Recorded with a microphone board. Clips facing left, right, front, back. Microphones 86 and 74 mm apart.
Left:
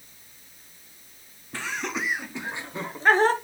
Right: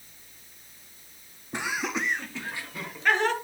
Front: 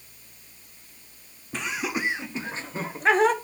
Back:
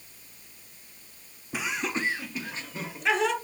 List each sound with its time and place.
1.5 s laughter: 115° right, 0.6 m; by 3.3 s 45° left, 1.1 m